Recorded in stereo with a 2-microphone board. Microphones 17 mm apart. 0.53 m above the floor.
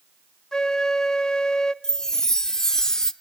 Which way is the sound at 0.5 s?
45° left (ahead or behind).